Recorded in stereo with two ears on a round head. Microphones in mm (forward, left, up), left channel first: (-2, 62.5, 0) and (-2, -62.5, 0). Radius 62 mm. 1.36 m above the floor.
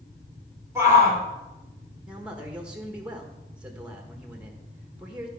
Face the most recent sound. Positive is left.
turn(degrees=-5)  # may be behind; listen again after turning